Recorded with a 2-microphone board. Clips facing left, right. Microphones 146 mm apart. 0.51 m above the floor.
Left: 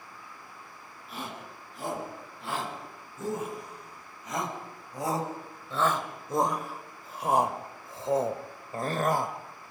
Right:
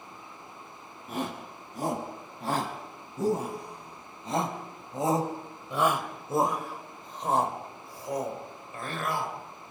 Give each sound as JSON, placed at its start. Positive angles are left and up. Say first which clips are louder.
{"t": 1.1, "sound": "a shout", "louder": "right 6 dB", "side_deg": -45, "distance_m": 4.5}